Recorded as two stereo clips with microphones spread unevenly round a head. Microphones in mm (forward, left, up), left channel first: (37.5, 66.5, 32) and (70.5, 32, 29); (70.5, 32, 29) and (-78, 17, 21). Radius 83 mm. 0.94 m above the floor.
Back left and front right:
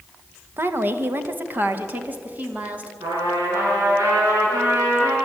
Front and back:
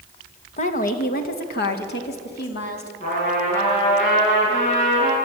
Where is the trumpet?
50° right, 9 m.